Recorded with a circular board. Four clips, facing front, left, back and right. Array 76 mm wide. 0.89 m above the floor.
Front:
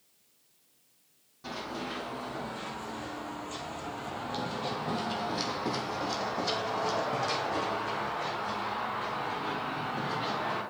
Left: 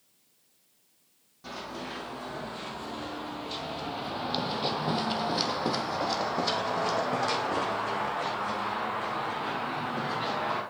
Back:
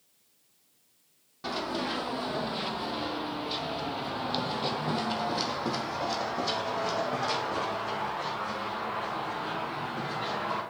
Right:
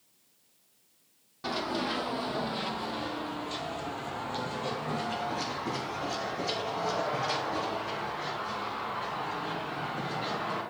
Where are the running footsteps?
135° right, 1.5 m; by 10.6 s 80° left, 3.5 m.